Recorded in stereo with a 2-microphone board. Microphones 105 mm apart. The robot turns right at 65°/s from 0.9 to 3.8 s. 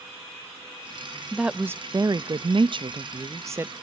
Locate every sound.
1.3 s a woman speaking: 175° right, 0.5 m; by 3.7 s 20° right, 0.5 m